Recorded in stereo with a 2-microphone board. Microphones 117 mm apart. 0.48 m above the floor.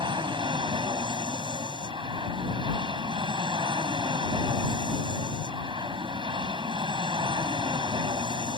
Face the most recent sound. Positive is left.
turn(degrees=-45)  # may be behind; listen again after turning